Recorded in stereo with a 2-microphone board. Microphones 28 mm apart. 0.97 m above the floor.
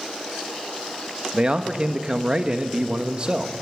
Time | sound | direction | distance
1.3 | a man speaking | 35° right (ahead or behind) | 1.1 m